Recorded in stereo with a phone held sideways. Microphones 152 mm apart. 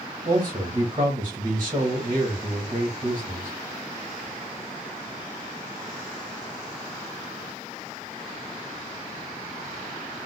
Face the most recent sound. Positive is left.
turn(degrees=-35)  # may be behind; listen again after turning